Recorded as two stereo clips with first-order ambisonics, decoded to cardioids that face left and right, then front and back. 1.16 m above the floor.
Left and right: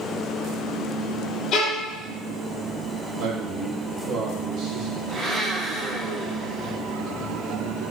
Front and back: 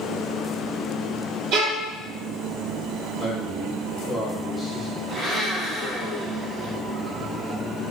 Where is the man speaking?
90° right, 0.7 m.